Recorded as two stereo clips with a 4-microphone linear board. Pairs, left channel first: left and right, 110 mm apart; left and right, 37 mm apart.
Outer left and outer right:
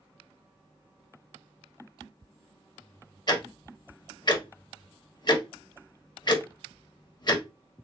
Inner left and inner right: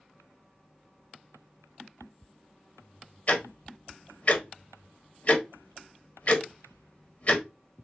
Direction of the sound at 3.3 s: 45° left (ahead or behind).